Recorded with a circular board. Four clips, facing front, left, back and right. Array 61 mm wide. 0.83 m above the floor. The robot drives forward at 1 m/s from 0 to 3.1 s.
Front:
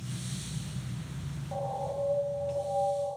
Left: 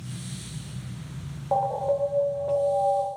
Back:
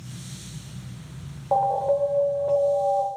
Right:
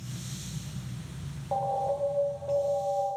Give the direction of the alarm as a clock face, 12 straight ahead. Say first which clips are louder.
Left 4 dB, back 13 dB; 7 o'clock.